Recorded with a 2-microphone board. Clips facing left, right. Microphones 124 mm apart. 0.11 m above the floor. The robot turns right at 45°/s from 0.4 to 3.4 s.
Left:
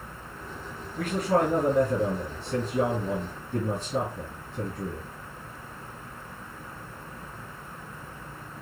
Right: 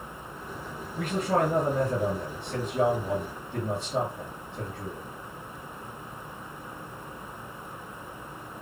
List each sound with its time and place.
1.0 s a man speaking: 10° right, 1.8 m; by 5.0 s 100° left, 1.8 m